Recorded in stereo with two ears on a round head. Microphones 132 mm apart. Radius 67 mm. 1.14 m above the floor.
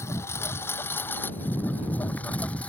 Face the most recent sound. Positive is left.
turn(degrees=10)  # may be behind; listen again after turning